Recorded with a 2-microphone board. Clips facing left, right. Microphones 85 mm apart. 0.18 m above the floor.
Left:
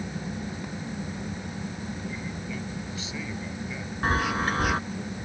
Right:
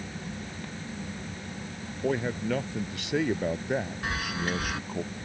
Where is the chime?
40° left (ahead or behind).